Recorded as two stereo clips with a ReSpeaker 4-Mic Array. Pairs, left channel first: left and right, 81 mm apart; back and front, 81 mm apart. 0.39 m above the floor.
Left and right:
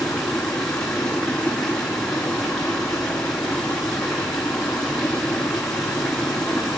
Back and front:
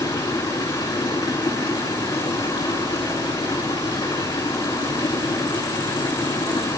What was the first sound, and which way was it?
Running water, 175° left.